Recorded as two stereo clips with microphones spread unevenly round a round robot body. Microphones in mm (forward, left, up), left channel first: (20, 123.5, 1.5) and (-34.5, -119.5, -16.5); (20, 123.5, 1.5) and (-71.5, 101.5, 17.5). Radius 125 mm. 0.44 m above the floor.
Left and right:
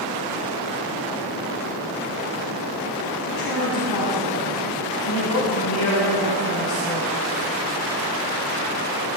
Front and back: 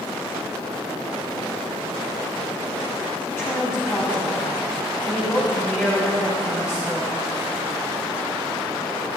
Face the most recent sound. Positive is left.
turn(degrees=80)